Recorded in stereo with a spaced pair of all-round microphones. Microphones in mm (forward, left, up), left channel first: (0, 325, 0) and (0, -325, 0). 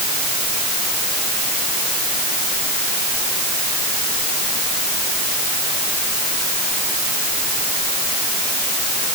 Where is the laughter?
I don't hear laughter.